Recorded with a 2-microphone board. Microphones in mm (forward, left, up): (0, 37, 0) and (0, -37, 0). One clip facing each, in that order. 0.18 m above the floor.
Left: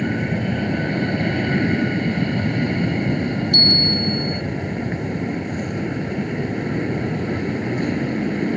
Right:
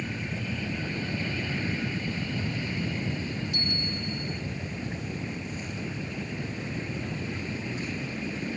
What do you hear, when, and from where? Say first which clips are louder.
0.0 s an aircraft: left 12 dB; 60° left (ahead or behind)
3.5 s a bell: left 12 dB; 70° left (ahead or behind)